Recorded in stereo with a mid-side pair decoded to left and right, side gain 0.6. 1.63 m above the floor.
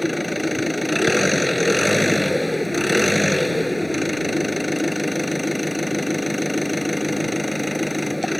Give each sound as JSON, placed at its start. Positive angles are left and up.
{"t": 0.0, "sound": "an engine running", "azimuth_deg": 5}